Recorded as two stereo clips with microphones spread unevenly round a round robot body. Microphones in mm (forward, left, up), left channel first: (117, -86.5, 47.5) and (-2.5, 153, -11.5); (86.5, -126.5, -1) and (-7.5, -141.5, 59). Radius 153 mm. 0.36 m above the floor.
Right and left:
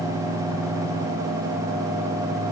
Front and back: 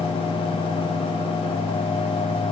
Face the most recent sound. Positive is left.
No sound to turn to.